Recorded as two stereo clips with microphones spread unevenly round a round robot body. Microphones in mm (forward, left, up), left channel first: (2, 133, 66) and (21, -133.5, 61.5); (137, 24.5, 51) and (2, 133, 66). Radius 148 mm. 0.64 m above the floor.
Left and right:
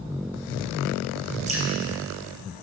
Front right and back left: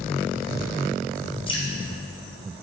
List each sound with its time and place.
1.5 s dripping: 45° right, 1.2 m